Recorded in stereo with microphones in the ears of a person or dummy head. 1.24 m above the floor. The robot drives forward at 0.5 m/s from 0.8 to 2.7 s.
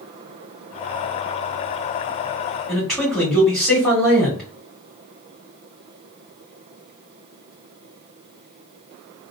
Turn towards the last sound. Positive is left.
turn(degrees=0)  # may be behind; listen again after turning